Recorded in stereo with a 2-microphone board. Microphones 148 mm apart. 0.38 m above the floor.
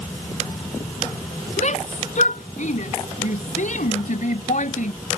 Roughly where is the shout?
Left.